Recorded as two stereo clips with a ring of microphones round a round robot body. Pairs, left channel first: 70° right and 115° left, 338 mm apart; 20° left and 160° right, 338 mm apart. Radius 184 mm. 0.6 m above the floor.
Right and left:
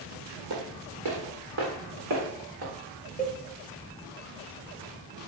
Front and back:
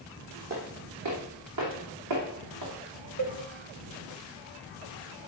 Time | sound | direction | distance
0.5 | footsteps | 155° left | 2 m
3.2 | a cowbell | 135° right | 1.1 m